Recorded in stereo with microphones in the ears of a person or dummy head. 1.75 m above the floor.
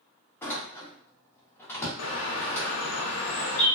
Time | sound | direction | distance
0.4 | a door slam | 15° left (ahead or behind) | 0.8 m
2.0 | a bird | 65° left (ahead or behind) | 0.7 m